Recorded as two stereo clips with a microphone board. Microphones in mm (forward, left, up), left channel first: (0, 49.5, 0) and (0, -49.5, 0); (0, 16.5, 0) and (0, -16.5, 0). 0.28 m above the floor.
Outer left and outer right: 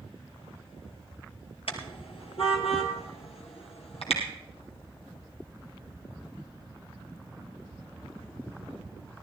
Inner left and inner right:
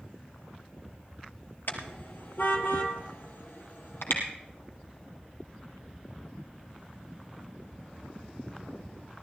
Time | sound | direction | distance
1.7 | a car horn | 70° left (ahead or behind) | 2 m